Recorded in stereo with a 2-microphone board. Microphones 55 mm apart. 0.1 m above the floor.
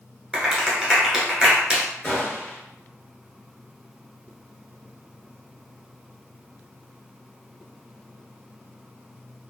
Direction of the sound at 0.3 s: 10° right (ahead or behind).